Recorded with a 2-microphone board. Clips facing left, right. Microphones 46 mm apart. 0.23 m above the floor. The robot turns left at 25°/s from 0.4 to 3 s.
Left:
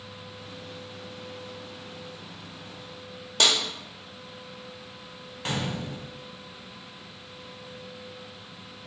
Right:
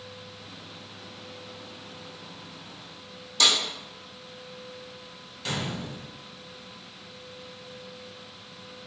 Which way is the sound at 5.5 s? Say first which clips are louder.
Left 1 dB; 35° left (ahead or behind).